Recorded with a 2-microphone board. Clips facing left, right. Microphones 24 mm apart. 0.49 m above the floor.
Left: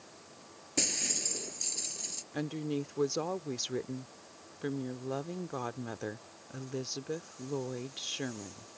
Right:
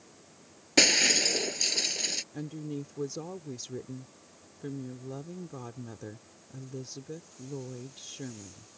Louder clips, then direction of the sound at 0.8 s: Right 12 dB; 50° right (ahead or behind).